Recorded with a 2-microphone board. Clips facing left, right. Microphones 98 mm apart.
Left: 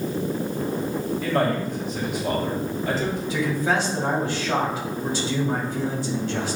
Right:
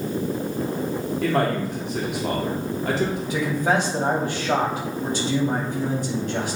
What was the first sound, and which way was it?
A man speaking, 70° right (ahead or behind).